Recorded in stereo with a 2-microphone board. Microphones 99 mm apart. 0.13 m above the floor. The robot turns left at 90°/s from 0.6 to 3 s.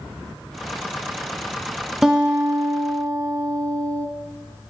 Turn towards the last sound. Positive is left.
turn(degrees=-90)